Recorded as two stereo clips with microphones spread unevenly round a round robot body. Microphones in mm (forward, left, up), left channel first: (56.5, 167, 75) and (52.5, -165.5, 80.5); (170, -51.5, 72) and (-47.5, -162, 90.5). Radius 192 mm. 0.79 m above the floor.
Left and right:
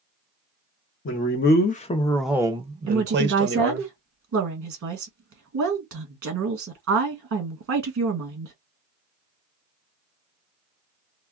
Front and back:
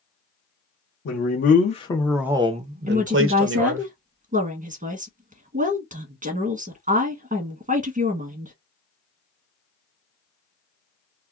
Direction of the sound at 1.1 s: 45° left.